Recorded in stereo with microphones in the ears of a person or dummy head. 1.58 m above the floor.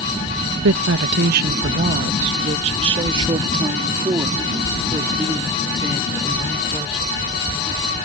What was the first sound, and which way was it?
A woman speaking, 75° right (ahead or behind).